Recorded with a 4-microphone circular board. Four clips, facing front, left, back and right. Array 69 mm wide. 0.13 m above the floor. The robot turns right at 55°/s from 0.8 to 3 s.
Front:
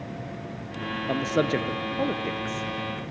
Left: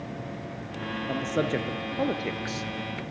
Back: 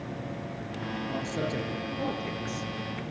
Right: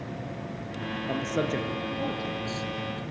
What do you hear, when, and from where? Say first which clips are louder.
1.1 s a man speaking: left 1 dB, front 9 dB; 5° right, 2.5 m; by 3.0 s 100° left, 2.5 m